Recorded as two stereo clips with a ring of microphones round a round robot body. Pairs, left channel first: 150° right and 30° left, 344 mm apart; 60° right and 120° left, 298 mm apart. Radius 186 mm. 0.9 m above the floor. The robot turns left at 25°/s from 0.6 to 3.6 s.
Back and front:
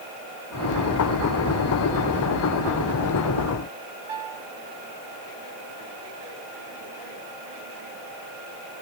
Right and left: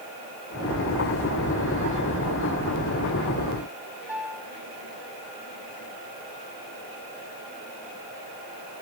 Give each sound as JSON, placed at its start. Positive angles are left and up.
{"t": 4.1, "sound": "a piano", "azimuth_deg": 40, "distance_m": 7.5}